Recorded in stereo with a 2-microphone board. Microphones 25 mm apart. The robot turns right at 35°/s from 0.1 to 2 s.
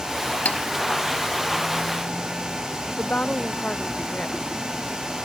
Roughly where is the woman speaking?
Left.